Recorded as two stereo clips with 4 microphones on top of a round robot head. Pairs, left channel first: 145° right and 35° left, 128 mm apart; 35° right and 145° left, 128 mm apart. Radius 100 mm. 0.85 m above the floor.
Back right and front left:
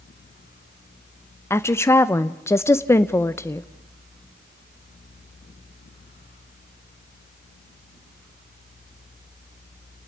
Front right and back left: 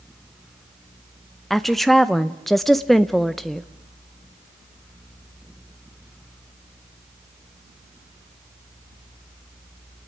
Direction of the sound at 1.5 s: 125° right.